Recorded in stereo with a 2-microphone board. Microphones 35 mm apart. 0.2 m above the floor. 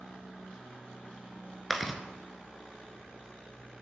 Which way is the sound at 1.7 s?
Centre (ahead or behind).